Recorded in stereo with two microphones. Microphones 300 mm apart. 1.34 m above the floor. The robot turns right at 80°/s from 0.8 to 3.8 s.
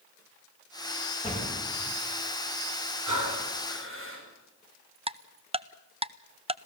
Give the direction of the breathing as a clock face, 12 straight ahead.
3 o'clock.